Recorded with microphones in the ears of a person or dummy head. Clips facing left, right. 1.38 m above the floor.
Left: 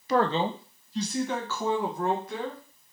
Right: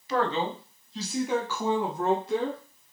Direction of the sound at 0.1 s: 40° left (ahead or behind).